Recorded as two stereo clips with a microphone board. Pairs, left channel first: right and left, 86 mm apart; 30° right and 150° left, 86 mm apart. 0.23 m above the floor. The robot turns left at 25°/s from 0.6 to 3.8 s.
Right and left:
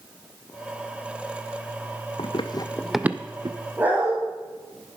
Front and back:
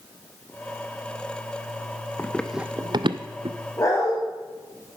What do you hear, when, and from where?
2.2 s running footsteps: 95° right, 0.8 m; by 3.6 s 120° left, 0.9 m
3.8 s a dog barking: 20° left, 4.5 m